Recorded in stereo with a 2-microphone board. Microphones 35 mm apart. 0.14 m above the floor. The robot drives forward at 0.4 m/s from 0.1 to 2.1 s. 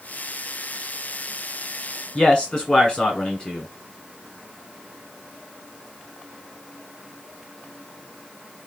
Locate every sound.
2.1 s a man speaking: 25° left (ahead or behind), 1.1 m